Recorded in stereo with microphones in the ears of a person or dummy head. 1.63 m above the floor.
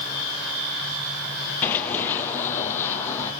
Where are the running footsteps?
15° left (ahead or behind), 2 m.